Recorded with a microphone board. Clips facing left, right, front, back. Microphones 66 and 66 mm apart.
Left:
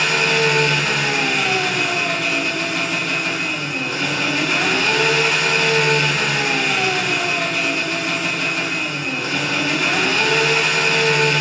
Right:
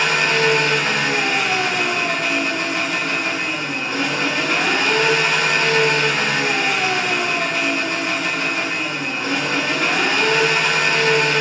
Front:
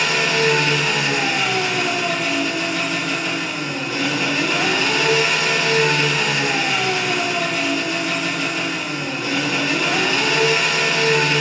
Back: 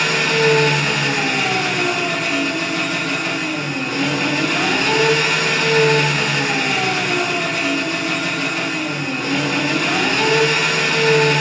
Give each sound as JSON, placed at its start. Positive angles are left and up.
{"t": 0.0, "sound": "an engine running", "azimuth_deg": -145, "distance_m": 1.2}